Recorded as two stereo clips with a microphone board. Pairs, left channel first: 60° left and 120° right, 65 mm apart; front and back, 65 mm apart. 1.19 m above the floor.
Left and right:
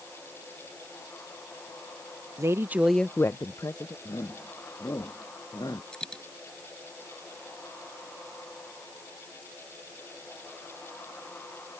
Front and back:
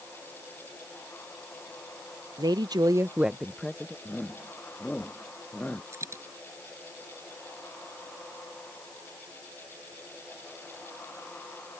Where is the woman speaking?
165° right; by 4.0 s 70° left.